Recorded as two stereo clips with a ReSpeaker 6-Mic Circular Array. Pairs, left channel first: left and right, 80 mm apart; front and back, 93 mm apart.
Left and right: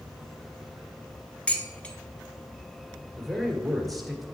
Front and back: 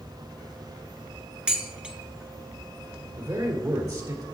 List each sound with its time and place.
1.5 s dishes clattering: 125° left, 0.9 m
3.2 s a man speaking: 175° left, 1.7 m